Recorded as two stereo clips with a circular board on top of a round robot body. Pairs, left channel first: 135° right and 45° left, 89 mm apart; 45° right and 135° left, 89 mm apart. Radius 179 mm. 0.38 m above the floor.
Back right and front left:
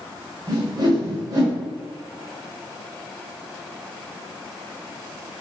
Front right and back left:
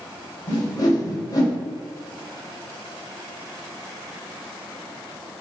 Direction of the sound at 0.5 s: 5° left.